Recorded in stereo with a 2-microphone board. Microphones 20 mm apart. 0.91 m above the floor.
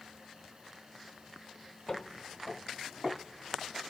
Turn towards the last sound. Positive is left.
turn(degrees=0)  # may be behind; listen again after turning